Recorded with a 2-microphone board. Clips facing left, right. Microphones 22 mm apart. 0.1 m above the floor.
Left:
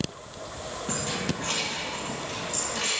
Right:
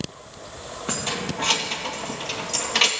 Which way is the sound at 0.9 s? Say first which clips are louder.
Right 3 dB; 40° right (ahead or behind).